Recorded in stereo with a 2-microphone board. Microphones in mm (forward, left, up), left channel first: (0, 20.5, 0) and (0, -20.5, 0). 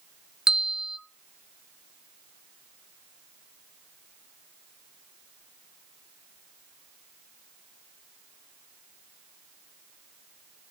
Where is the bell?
15° right (ahead or behind), 0.7 m.